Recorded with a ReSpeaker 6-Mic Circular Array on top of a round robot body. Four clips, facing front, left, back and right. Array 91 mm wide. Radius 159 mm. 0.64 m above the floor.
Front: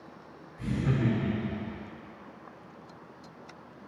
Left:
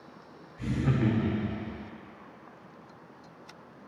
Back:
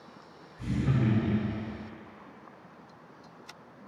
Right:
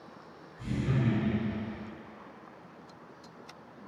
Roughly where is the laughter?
Left.